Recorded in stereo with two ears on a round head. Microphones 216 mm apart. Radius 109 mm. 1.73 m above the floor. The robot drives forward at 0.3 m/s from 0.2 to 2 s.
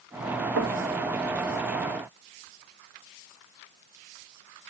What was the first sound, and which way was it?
Knocking, 55° right (ahead or behind).